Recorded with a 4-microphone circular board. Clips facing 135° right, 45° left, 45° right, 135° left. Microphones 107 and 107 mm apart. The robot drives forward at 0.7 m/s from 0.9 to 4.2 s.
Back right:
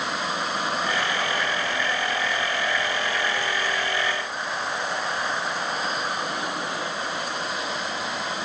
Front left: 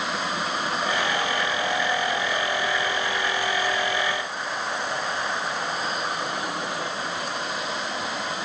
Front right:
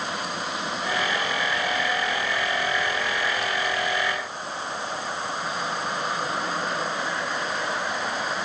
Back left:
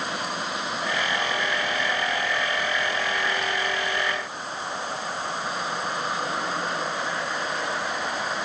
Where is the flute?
I don't hear a flute.